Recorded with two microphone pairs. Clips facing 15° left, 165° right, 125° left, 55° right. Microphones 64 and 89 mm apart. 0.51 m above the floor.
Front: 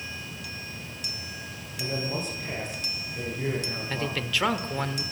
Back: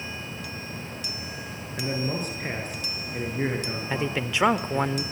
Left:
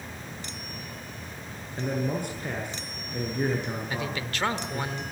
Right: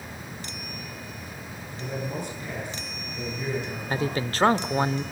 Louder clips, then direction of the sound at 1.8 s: Back 2 dB, left 4 dB; 155° left.